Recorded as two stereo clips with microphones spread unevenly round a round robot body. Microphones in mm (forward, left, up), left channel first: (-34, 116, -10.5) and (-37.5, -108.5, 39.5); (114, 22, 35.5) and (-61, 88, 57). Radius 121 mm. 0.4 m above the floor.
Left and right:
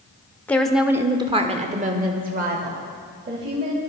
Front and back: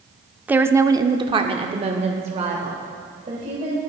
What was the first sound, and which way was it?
A woman speaking, 75° left.